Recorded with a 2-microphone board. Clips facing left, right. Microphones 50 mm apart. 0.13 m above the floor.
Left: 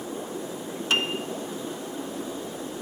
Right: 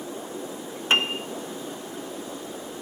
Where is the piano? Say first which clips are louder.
Right 3 dB; 30° right (ahead or behind), 0.5 m.